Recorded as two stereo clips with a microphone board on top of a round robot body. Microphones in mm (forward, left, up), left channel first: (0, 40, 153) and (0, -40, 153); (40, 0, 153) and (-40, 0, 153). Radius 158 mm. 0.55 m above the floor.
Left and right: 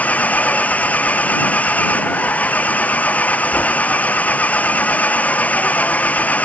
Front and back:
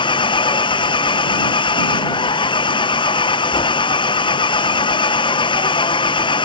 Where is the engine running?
20° left.